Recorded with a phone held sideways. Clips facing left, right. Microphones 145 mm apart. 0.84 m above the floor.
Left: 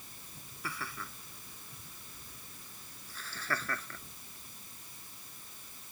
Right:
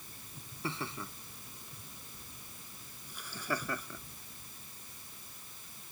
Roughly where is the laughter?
Right.